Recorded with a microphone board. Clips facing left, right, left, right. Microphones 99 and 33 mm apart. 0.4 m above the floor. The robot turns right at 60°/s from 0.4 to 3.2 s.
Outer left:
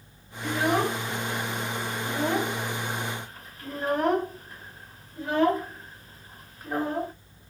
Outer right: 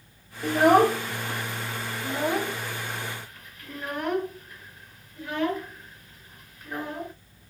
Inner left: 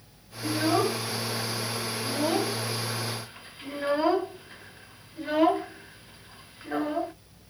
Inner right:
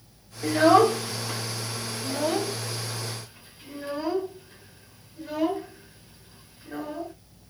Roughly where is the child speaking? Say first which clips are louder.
Outer right 7 dB, inner right 7 dB; right.